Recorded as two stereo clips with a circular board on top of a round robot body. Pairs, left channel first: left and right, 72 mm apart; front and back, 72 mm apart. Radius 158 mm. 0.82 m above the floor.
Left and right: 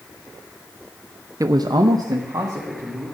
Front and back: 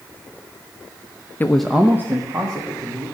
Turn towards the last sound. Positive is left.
turn(degrees=-140)